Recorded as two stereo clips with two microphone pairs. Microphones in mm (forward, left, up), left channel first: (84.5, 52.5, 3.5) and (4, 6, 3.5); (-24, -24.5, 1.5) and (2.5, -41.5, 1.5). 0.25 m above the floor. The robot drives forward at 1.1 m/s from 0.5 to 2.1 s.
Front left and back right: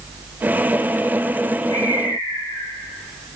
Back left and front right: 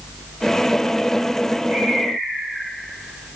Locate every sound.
1.7 s a bird: 25° right, 9.5 m